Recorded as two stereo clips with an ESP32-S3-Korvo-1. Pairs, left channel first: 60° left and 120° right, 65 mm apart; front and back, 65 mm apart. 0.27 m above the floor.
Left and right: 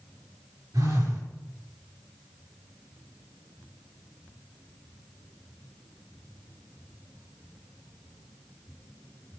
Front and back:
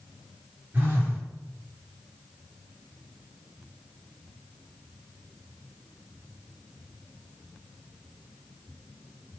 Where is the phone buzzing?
120° right, 4.5 m.